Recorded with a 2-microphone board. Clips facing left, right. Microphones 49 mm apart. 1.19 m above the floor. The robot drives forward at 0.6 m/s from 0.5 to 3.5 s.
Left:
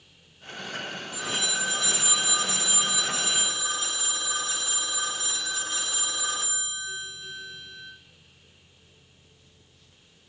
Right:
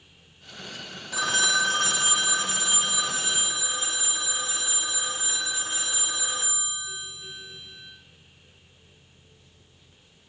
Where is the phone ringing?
85° right, 0.6 m; by 7.9 s 20° right (ahead or behind), 1.6 m.